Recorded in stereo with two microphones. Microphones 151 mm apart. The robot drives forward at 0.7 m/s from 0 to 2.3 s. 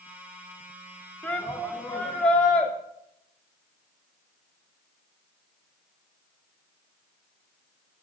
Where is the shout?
10° left (ahead or behind), 1.4 m.